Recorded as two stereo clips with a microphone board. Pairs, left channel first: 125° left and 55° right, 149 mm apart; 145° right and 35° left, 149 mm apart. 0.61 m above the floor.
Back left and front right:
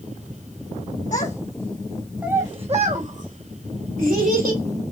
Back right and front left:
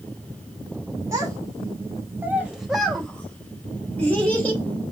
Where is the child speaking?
100° left, 1.1 m; by 4.6 s 65° right, 2.5 m.